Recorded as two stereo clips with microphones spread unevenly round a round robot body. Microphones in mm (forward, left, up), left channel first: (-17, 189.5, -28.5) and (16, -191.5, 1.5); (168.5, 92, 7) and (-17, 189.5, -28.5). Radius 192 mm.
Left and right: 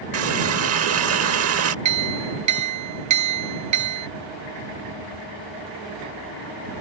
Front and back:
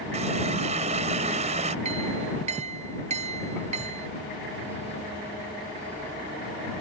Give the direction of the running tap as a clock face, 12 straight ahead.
5 o'clock.